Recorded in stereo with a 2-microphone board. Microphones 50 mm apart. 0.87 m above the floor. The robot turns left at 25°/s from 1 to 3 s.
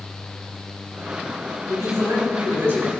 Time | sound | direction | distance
1.7 | a man speaking | 95° right | 3.5 m